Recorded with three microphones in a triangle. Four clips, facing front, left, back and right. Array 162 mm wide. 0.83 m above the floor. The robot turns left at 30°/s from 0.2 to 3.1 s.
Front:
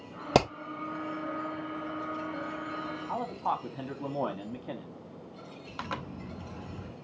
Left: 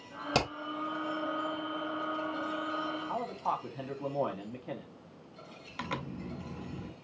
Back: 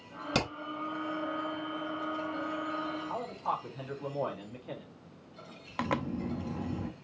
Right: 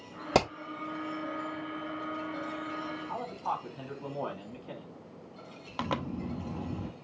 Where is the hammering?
15° right, 1.6 m; by 0.5 s 20° right, 1.6 m.